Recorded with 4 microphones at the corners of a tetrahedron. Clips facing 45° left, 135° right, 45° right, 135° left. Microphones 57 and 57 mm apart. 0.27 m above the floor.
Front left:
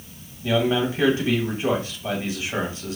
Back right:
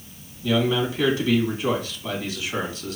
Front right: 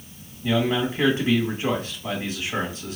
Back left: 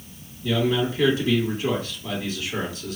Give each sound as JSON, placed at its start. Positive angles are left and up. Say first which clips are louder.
{"t": 0.4, "sound": "a man speaking", "louder": "front left 1 dB, even", "azimuth_deg": 0, "distance_m": 1.9}